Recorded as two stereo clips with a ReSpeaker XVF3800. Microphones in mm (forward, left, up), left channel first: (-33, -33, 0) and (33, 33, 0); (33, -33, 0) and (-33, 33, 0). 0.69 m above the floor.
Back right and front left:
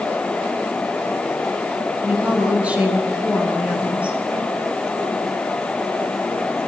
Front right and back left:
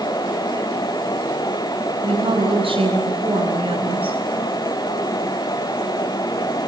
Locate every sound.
2.0 s a woman speaking: 120° left, 8 m